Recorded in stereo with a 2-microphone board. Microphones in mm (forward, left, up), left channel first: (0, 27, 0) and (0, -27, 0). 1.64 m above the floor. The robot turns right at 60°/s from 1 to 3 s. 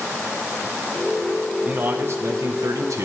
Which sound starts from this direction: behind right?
A man speaking, at 1.6 s.